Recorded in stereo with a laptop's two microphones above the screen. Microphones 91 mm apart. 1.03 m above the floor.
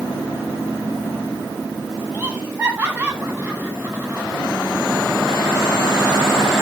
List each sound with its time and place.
2.1 s laughter: 20° right (ahead or behind), 10 m